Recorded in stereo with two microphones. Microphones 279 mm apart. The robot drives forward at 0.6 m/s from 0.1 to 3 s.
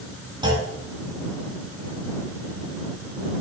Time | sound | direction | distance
0.4 | a clunk | 15° right (ahead or behind) | 0.6 m